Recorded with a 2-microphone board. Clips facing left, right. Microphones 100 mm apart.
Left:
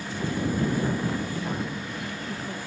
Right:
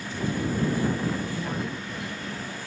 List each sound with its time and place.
1.4 s a woman speaking: 10° right (ahead or behind); by 2.6 s 30° left (ahead or behind)